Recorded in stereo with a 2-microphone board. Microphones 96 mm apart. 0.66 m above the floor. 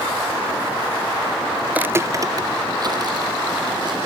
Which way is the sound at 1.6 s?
5° right (ahead or behind).